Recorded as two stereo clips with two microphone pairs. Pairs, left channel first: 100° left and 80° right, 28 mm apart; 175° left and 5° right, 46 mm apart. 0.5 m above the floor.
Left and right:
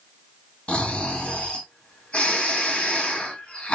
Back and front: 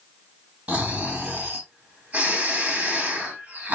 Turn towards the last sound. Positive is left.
turn(degrees=55)